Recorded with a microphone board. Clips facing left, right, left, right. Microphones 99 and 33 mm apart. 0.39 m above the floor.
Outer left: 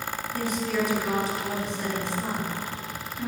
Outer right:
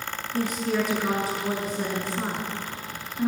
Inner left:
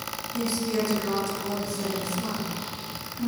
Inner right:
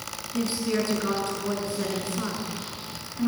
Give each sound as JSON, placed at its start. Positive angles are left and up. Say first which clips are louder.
{"t": 0.3, "sound": "a woman speaking", "louder": "outer right 2 dB, inner right 1 dB", "side_deg": -50, "distance_m": 5.5}